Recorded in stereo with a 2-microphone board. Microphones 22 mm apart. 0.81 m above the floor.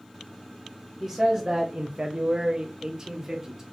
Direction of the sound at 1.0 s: 20° right (ahead or behind).